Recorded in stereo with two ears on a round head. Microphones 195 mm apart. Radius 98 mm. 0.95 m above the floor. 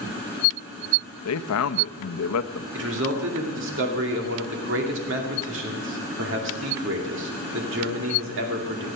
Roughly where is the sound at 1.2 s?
Left.